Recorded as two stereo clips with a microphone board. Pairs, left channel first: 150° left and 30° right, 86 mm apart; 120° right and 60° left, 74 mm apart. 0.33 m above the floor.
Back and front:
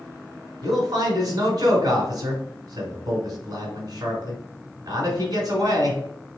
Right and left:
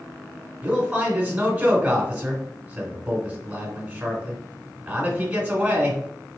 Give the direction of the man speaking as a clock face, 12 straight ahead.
12 o'clock.